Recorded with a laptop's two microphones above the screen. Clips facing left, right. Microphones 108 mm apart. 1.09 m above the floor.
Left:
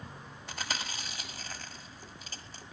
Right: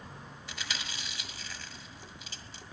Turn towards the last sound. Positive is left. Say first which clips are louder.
# left 3 dB
turn(degrees=40)  # may be behind; listen again after turning